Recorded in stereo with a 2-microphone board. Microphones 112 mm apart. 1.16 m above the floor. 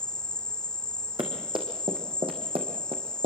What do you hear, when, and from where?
0.0 s an insect: 5° left (ahead or behind), 1.1 m
1.2 s running footsteps: 45° right (ahead or behind), 5 m; by 3.3 s 65° right (ahead or behind), 3.5 m